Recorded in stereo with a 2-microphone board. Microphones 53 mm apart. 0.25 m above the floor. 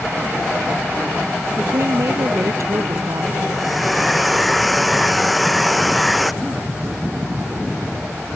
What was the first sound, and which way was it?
A woman speaking, 80° right.